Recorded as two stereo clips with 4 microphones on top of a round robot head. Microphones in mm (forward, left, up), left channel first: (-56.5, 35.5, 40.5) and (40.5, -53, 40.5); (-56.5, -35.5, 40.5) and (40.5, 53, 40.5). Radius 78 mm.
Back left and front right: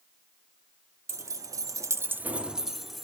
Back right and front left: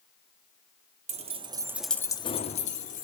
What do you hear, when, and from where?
1.1 s keys jangling: 20° left, 0.9 m; by 3.0 s 130° right, 1.2 m